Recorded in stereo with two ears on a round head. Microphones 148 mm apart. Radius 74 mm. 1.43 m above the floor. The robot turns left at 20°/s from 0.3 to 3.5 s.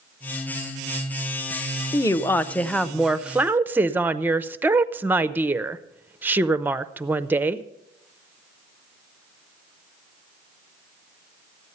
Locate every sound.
1.9 s a woman speaking: 20° left, 0.6 m; by 7.6 s 10° right, 0.6 m